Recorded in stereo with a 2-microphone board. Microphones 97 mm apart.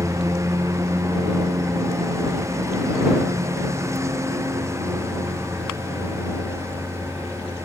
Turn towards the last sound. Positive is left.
turn(degrees=-30)  # may be behind; listen again after turning